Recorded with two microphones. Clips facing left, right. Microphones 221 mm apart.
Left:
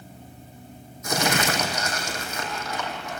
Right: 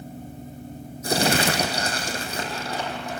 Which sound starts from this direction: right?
Crumpling, at 1.0 s.